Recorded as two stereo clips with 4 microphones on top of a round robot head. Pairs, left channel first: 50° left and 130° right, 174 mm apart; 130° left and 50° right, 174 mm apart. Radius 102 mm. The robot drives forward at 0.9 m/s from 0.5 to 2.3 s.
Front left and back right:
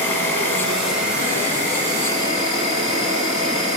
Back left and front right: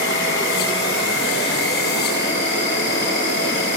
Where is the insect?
125° left, 1.0 m; by 3.8 s 160° left, 2.5 m.